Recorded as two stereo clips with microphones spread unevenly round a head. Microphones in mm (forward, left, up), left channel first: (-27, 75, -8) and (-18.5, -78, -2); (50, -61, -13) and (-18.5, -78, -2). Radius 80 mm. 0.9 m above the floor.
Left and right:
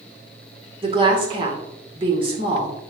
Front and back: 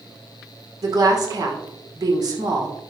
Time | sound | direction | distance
0.8 | a woman speaking | 140° right | 2.5 m